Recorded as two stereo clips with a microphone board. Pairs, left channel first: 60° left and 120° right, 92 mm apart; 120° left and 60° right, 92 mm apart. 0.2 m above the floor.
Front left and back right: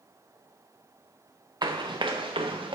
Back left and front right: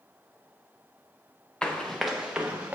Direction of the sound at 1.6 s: 160° right.